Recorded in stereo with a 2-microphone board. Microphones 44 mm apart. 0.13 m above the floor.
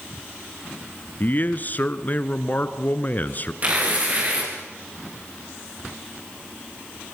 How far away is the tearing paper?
About 6 m.